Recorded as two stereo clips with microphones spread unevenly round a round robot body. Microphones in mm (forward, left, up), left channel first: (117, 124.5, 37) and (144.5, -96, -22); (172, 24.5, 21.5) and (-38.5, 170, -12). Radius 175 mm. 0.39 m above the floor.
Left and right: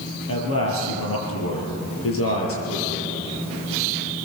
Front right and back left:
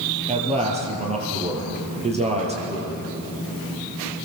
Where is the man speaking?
80° left, 8 m.